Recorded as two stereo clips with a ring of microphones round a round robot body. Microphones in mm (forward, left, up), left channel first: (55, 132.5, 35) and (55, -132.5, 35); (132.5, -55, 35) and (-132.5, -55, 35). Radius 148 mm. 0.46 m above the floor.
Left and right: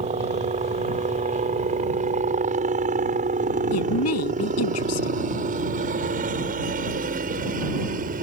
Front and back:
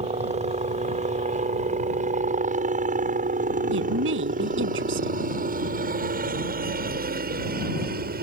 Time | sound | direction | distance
0.0 | a helicopter | 135° right | ?
3.7 | a woman speaking | 130° left | ?